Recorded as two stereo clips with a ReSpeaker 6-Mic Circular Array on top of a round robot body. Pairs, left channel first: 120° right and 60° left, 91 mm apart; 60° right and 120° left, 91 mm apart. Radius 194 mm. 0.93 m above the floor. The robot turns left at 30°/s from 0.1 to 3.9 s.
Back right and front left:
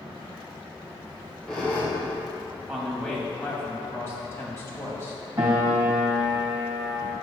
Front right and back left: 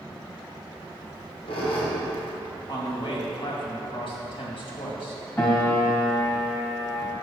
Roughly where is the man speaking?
Ahead right.